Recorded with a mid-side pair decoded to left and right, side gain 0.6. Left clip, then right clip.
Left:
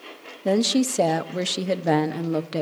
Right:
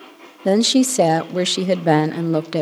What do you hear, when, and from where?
0.5 s a woman speaking: 30° right, 0.7 m